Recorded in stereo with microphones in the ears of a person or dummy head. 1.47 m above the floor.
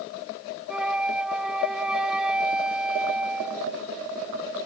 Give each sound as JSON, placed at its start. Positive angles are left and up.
{"t": 0.7, "sound": "a flute", "side_deg": -5}